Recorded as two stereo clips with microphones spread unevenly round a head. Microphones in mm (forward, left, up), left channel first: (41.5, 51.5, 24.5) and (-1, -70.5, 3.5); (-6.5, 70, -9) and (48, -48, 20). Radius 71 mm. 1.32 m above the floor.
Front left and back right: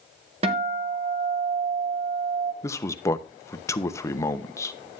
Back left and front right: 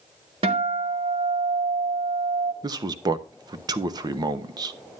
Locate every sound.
0.4 s a guitar: 70° right, 1.5 m
2.6 s a man speaking: straight ahead, 0.8 m